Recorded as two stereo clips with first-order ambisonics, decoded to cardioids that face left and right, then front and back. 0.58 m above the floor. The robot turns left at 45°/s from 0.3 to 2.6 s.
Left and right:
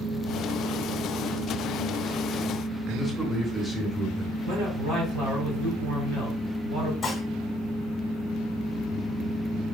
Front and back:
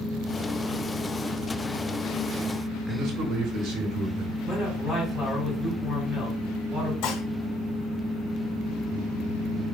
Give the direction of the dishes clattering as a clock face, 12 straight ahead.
12 o'clock.